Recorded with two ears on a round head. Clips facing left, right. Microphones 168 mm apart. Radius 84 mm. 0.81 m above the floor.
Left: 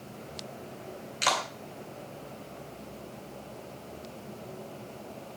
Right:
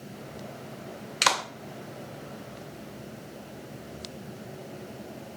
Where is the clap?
80° right, 2.5 m.